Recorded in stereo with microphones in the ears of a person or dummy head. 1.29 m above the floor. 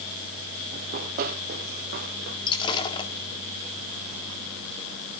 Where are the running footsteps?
45° right (ahead or behind), 2.5 m; by 2.4 s 55° right (ahead or behind), 3 m.